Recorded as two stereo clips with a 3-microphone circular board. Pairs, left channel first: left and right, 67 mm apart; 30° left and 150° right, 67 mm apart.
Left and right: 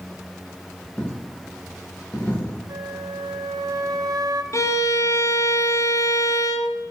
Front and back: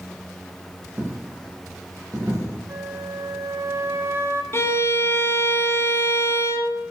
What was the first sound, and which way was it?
A dropped coin, 155° left.